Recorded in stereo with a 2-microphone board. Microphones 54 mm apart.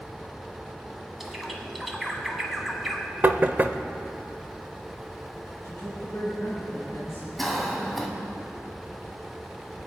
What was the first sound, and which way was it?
A bird, centre (ahead or behind).